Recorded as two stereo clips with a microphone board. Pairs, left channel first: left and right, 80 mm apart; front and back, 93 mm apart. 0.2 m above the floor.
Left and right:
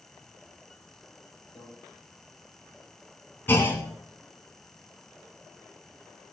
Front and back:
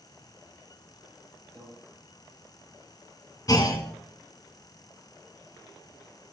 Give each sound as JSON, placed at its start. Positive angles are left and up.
{"t": 1.6, "sound": "a microwave", "azimuth_deg": 85, "distance_m": 5.0}
{"t": 3.5, "sound": "a clunk", "azimuth_deg": 30, "distance_m": 1.4}